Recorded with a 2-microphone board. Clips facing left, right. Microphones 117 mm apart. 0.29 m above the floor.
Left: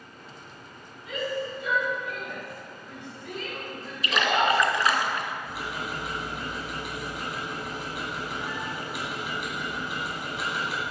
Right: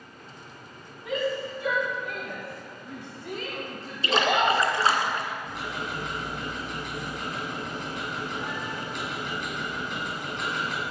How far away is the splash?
About 0.8 m.